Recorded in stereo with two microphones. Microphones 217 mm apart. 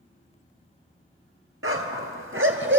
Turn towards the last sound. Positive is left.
turn(degrees=-60)  # may be behind; listen again after turning